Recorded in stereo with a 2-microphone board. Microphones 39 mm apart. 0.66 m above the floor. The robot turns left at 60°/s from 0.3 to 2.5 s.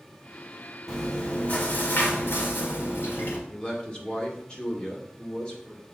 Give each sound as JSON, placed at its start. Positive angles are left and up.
{"t": 0.9, "sound": "chewing", "azimuth_deg": 175, "distance_m": 1.8}
{"t": 3.5, "sound": "a man speaking", "side_deg": 25, "distance_m": 2.0}